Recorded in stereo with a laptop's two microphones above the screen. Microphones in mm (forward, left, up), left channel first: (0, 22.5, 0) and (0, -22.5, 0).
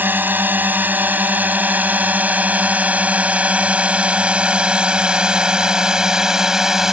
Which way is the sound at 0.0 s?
45° right (ahead or behind).